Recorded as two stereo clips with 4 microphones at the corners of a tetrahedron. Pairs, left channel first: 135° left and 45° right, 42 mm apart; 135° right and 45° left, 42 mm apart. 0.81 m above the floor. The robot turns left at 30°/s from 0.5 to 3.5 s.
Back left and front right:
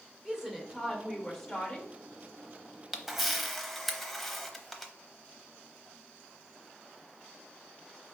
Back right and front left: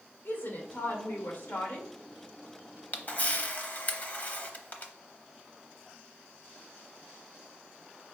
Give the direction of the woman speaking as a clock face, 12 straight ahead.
4 o'clock.